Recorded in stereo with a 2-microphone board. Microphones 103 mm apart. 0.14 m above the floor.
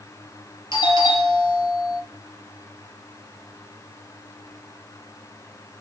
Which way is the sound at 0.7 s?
50° left (ahead or behind).